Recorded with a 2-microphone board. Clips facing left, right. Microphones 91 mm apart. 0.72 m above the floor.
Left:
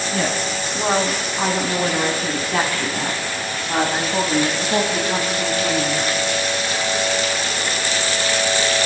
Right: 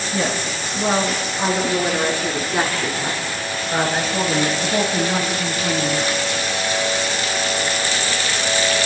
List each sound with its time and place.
0.1 s a woman speaking: 60° left (ahead or behind), 6 m; by 6.1 s 80° left, 6.5 m